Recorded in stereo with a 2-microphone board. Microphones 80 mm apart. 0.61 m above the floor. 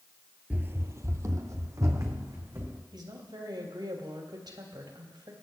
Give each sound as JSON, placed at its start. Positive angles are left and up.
{"t": 0.5, "sound": "running footsteps", "side_deg": -20, "distance_m": 0.6}
{"t": 2.9, "sound": "a woman speaking", "side_deg": -70, "distance_m": 3.5}